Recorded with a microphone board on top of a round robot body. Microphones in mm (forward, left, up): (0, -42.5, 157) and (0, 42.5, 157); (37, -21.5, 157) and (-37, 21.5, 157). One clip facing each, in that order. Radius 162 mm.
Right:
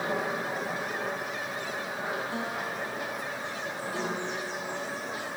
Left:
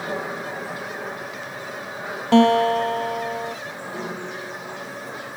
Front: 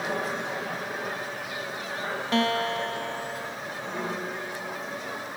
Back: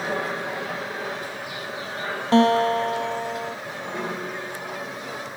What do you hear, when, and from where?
2.3 s a guitar: 90° left